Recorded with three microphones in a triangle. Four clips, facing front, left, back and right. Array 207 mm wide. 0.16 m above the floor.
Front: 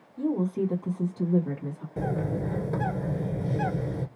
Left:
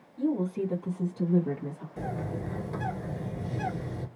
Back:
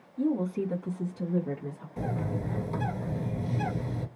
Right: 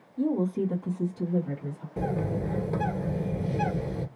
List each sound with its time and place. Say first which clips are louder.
0.2 s a woman speaking: right 2 dB, front 1 dB; 55° right, 1.8 m; by 1.9 s 55° left, 2.5 m
2.0 s a bird: right 6 dB, front 4 dB; 40° right, 1.3 m